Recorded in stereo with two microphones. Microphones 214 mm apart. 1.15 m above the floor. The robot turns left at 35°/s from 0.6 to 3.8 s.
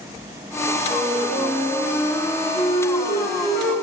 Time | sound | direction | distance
0.9 | a flute | 145° right | 4 m